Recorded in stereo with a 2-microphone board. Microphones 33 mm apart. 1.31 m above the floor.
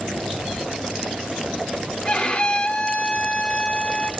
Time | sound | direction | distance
2.0 | a violin | 35° left (ahead or behind) | 1.1 m